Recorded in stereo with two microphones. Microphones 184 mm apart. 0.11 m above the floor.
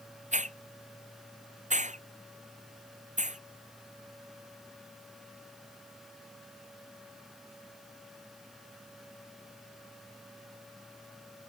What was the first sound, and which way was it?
A hiss, 40° right (ahead or behind).